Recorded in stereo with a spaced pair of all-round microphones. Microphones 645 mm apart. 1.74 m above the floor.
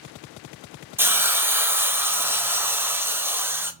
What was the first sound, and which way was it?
A hiss, 5° right (ahead or behind).